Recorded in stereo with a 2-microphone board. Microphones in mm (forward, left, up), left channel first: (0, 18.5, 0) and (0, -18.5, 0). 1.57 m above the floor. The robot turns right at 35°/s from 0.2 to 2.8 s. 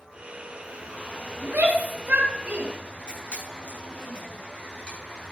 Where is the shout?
80° right, 3 m; by 2.7 s 35° right (ahead or behind), 3 m.